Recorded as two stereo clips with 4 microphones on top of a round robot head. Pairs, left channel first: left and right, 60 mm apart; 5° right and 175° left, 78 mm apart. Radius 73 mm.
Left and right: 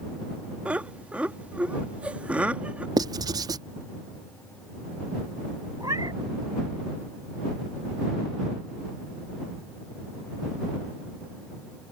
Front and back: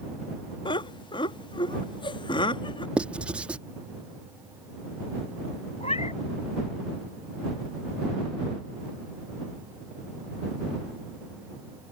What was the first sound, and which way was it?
Laughter, 15° right.